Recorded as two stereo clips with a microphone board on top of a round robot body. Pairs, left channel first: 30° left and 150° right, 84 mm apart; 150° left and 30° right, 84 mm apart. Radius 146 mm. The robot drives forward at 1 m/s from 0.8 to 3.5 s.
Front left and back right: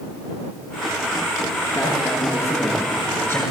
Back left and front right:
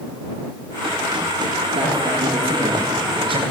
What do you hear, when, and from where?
1.8 s a man speaking: 25° right, 8.5 m; by 3.4 s 30° right, 7 m